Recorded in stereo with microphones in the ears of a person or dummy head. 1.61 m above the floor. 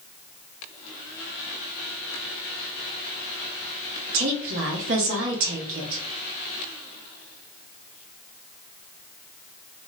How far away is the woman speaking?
About 0.9 m.